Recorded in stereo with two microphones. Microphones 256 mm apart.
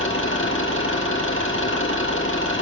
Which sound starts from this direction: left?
An engine running, at 0.0 s.